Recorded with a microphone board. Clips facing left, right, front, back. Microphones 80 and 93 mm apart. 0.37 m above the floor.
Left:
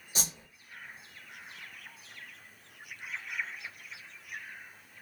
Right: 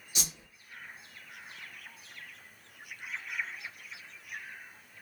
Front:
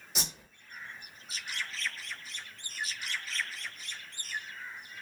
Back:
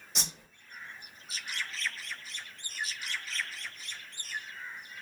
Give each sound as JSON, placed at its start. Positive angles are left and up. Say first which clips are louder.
{"t": 0.1, "sound": "a whoosh", "louder": "left 2 dB, front 1 dB", "azimuth_deg": 85, "distance_m": 1.0}